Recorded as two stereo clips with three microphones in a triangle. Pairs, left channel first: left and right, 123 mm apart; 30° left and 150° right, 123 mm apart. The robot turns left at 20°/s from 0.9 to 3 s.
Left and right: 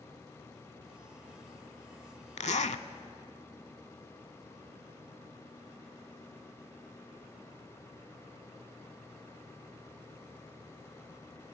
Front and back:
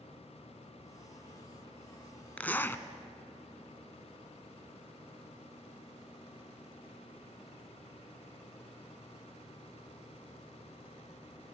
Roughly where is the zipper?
Left.